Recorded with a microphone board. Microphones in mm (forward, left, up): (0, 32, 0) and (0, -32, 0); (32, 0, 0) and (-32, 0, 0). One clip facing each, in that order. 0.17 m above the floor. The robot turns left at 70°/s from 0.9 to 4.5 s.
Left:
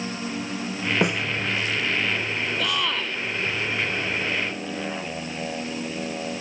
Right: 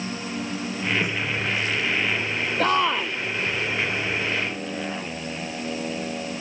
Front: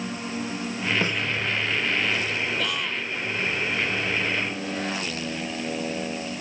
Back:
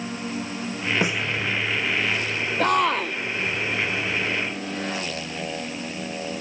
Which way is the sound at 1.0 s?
105° left.